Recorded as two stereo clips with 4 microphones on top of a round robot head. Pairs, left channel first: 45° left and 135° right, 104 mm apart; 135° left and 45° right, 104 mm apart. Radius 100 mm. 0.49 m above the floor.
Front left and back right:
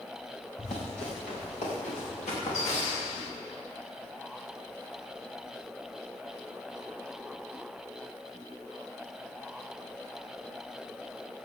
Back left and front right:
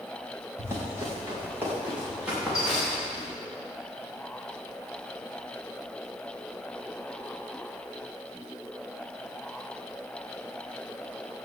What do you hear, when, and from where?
0.6 s running footsteps: 20° left, 6 m; by 3.3 s 45° left, 8 m